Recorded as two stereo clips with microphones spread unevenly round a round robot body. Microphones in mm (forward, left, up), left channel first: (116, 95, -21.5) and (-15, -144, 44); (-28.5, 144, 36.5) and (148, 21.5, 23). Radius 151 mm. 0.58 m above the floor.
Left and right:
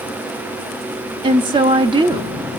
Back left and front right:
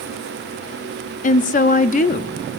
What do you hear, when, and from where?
1.2 s a woman speaking: 155° left, 0.6 m